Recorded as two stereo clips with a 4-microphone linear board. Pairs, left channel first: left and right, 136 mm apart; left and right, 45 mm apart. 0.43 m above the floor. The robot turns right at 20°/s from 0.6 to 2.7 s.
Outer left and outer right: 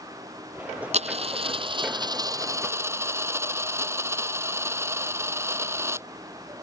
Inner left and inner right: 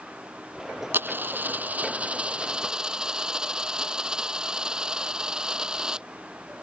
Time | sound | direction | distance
0.9 | a dropped coin | 55° right | ?